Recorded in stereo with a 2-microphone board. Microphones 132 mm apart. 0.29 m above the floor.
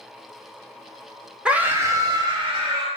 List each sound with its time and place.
1.4 s a scream: 10° right (ahead or behind), 1.0 m; by 2.9 s 50° right (ahead or behind), 1.5 m